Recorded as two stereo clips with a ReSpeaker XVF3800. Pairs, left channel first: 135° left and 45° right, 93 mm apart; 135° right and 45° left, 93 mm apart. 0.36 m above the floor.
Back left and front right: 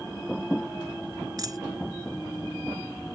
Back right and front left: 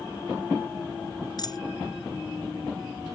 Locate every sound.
1.4 s a dropped coin: 95° right